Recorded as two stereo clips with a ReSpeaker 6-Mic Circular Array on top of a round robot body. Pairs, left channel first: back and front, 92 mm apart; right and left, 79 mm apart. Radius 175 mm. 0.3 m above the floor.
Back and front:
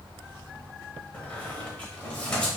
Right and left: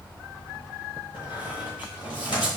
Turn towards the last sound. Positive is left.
turn(degrees=-105)